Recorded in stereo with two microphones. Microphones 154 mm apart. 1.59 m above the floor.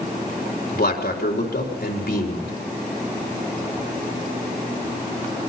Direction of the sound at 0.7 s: 80° left.